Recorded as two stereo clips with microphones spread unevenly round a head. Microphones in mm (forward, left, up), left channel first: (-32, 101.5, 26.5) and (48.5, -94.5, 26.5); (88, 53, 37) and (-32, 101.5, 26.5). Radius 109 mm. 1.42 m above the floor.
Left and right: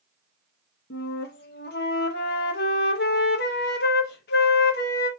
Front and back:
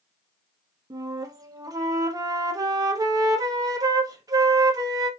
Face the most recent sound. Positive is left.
turn(degrees=105)